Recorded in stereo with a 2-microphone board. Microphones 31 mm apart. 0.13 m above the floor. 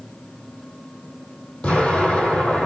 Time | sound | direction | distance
1.6 | an explosion | 55° left (ahead or behind) | 2.5 m